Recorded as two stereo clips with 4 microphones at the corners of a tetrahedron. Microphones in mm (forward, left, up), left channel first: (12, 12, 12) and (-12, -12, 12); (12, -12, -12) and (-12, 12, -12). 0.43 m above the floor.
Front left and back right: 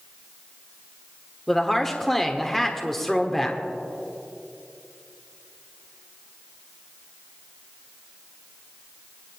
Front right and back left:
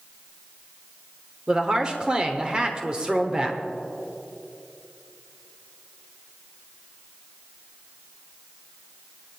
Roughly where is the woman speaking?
Behind left.